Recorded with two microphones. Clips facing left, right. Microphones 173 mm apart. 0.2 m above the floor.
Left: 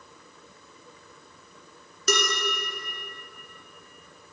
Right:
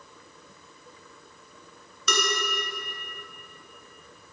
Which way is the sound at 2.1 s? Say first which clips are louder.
Left 3 dB; 45° left (ahead or behind).